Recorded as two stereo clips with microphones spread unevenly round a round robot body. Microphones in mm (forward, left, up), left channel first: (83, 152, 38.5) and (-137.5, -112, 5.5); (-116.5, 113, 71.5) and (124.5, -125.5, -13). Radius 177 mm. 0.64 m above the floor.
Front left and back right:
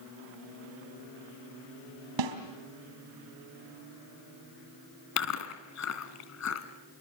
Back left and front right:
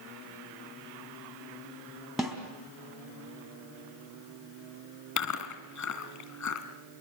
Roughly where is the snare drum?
Behind right.